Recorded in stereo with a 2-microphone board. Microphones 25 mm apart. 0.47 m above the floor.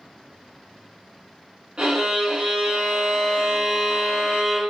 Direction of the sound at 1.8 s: 50° right (ahead or behind).